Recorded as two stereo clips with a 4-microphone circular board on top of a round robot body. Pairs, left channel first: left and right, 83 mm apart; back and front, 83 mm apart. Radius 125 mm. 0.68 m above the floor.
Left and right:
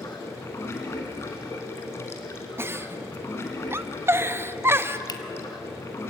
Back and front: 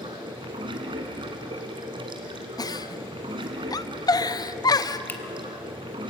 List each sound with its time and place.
0.0 s running water: 30° left, 1.5 m
2.6 s a giggle: 145° right, 0.7 m
5.1 s a finger snap: 115° left, 1.6 m